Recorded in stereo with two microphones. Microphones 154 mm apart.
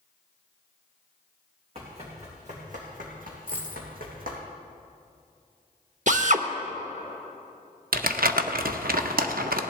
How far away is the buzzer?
No buzzer in this recording.